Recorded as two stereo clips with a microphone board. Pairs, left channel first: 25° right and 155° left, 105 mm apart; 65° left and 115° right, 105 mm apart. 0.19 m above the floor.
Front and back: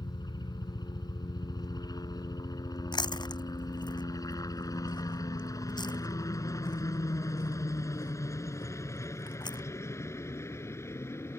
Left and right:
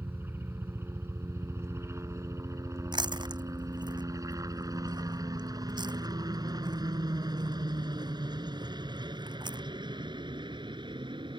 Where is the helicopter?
50° right; by 11.4 s 85° right.